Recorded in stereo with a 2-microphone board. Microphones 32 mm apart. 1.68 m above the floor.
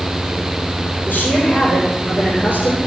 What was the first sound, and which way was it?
A woman speaking, 75° left (ahead or behind).